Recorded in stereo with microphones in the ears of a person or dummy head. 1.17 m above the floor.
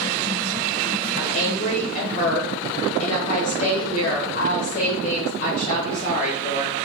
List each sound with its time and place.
1.2 s a woman speaking: 35° left (ahead or behind), 1.2 m